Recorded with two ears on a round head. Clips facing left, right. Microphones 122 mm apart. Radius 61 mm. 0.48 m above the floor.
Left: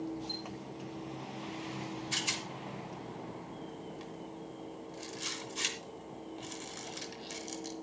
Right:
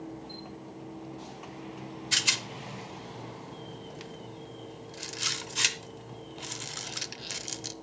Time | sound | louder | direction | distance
0.3 | a chime | left 1 dB | 40° left (ahead or behind) | 7.5 m
2.1 | a rattle | right 2 dB | 70° right (ahead or behind) | 0.8 m